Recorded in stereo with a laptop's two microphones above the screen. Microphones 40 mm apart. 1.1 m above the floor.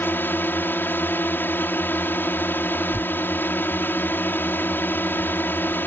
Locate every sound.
0.0 s a drone: 55° left (ahead or behind)
2.9 s tearing paper: centre (ahead or behind)